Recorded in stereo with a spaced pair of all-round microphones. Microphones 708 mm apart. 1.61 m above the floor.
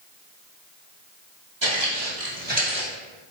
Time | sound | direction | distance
1.6 | footsteps | 30° right (ahead or behind) | 1.9 m